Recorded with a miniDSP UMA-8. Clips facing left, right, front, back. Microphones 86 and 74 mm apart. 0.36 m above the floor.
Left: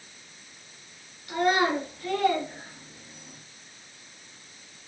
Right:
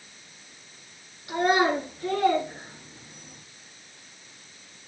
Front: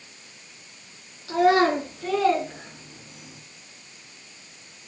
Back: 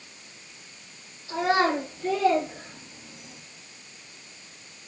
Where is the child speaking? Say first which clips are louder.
Right 1 dB, front 4 dB; 25° right, 4.5 m; by 3.4 s 35° right, 3.5 m.